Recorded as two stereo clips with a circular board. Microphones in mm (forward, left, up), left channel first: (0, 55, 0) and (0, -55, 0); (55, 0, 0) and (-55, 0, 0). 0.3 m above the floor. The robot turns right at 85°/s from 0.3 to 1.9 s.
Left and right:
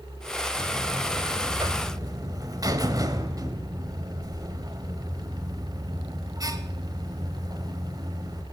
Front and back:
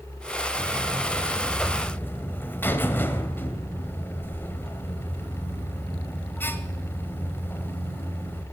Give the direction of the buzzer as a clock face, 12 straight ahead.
6 o'clock.